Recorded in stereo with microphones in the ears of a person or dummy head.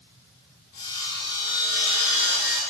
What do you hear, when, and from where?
0.7 s sawing: 50° left (ahead or behind), 1.0 m